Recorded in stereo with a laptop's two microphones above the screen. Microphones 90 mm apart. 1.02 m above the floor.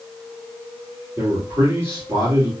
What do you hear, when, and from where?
1.2 s a man speaking: 30° right (ahead or behind), 2.5 m